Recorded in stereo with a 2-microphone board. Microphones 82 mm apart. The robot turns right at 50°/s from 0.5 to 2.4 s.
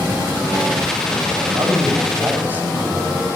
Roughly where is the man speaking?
Right.